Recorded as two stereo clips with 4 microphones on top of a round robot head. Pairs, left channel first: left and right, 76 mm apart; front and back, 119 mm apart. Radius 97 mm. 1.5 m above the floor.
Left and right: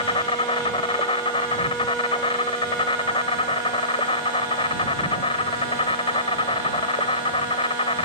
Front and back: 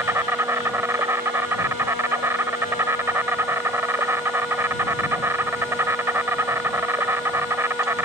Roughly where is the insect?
Left.